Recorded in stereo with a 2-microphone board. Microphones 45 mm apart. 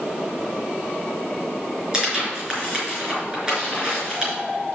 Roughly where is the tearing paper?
Centre.